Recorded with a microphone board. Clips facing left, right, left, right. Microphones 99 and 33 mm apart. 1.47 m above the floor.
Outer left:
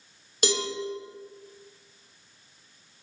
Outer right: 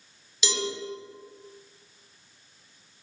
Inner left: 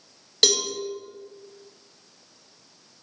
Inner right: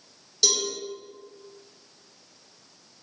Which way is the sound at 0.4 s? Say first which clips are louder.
Outer left 4 dB, inner left 4 dB; 50° left (ahead or behind).